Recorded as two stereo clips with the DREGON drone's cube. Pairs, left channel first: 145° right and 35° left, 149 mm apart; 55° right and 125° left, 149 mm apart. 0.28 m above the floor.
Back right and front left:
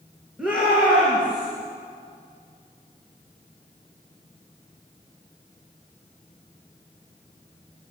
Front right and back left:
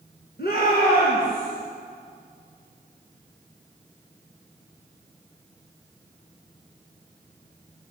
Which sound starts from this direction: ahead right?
A shout, at 0.4 s.